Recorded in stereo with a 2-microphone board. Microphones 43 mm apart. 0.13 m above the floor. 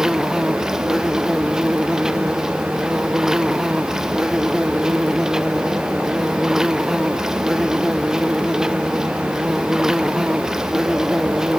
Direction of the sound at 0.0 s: 10° right (ahead or behind).